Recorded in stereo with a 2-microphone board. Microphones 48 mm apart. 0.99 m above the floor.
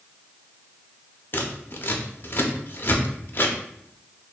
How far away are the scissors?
About 0.6 m.